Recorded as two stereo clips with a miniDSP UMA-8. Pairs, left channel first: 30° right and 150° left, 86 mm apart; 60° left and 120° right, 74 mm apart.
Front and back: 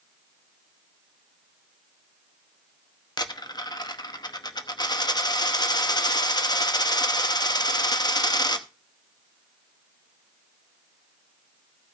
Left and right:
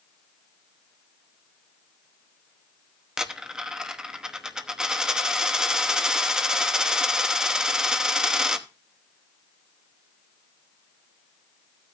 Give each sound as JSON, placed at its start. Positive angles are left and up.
{"t": 3.2, "sound": "a dropped coin", "azimuth_deg": -40, "distance_m": 0.9}